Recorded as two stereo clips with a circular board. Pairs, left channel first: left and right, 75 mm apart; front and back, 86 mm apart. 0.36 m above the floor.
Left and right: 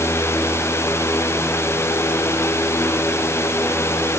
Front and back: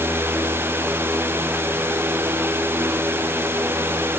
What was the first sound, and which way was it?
Only background noise.